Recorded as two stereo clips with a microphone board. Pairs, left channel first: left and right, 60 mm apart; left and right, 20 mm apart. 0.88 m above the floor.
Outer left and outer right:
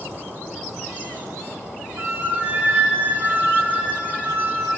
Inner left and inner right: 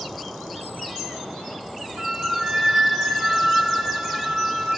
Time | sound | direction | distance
2.0 | a flute | 35° right (ahead or behind) | 1.7 m